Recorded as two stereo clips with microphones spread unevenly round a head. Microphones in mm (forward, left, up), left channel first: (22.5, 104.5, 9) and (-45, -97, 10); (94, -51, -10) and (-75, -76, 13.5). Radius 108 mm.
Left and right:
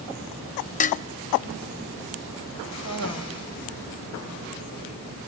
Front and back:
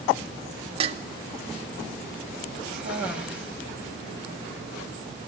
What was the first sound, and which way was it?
Dishes clattering, 125° left.